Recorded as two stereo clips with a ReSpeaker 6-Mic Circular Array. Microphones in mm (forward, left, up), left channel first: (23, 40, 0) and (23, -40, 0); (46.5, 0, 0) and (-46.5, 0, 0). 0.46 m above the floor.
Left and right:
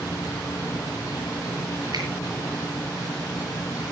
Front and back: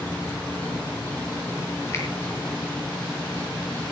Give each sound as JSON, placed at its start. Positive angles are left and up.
{"t": 0.0, "sound": "an insect", "azimuth_deg": 70, "distance_m": 1.7}
{"t": 1.9, "sound": "a finger snap", "azimuth_deg": -60, "distance_m": 7.0}